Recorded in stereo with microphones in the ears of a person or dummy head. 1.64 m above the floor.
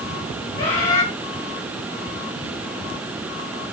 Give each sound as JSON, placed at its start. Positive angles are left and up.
{"t": 0.6, "sound": "a bird", "side_deg": 35, "distance_m": 0.8}